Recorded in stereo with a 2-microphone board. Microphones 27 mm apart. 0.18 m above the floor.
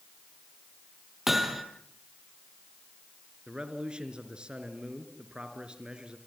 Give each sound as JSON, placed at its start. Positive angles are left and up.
{"t": 1.3, "sound": "hammering", "side_deg": -5, "distance_m": 2.5}
{"t": 3.5, "sound": "a man speaking", "side_deg": -35, "distance_m": 3.0}